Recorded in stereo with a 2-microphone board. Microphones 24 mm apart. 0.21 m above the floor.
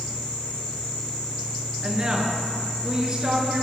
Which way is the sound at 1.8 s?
35° right (ahead or behind).